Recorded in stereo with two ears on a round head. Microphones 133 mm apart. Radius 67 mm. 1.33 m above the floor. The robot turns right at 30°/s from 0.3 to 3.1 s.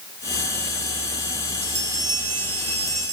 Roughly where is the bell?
Behind.